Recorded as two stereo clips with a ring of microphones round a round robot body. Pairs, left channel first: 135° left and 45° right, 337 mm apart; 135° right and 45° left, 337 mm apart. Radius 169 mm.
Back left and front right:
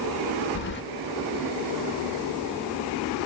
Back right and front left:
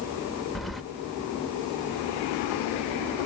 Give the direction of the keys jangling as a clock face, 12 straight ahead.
7 o'clock.